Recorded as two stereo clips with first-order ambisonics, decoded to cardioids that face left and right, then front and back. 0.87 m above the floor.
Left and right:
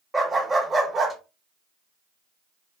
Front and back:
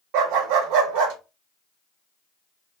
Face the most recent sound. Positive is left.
turn(degrees=-170)